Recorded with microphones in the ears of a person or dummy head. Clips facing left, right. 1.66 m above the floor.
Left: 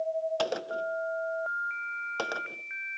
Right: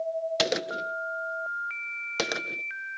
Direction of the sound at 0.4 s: 25° right (ahead or behind).